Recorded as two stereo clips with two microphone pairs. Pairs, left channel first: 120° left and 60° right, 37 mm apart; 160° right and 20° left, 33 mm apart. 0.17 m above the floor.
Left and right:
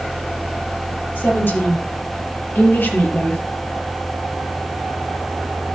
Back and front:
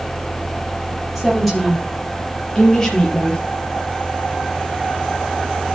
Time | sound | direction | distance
1.1 | a woman speaking | 110° left | 5 m